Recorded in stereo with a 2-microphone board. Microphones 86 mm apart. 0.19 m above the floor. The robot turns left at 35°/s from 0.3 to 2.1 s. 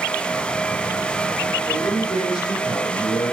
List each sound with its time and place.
1.7 s a man speaking: 35° left (ahead or behind), 4 m; by 3.4 s 50° left (ahead or behind), 4 m